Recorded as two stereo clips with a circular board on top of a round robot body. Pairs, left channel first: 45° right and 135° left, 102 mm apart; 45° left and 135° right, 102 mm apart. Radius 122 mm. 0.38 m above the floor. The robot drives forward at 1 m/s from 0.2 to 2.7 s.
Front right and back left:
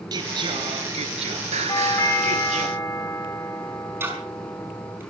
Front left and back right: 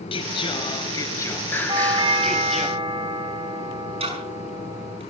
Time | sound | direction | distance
0.1 | singing | 80° left | 2 m
1.7 | a doorbell | 95° right | 3.5 m
4.0 | ticking | 160° right | 5.5 m